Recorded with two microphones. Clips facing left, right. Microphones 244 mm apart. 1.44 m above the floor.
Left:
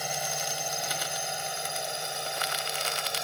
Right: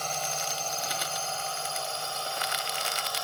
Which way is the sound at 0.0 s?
10° left (ahead or behind).